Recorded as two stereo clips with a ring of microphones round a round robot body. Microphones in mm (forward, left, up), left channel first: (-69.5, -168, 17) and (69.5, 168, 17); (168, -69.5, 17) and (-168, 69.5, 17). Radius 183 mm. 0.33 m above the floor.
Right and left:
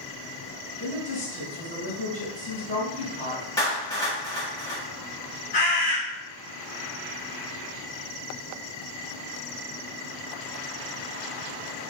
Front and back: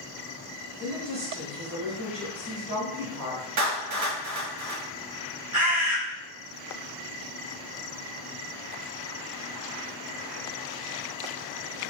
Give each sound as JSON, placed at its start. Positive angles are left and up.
{"t": 0.8, "sound": "a woman speaking", "azimuth_deg": 180, "distance_m": 1.8}
{"t": 3.6, "sound": "a clap", "azimuth_deg": 170, "distance_m": 1.3}
{"t": 5.5, "sound": "a bird", "azimuth_deg": -175, "distance_m": 1.5}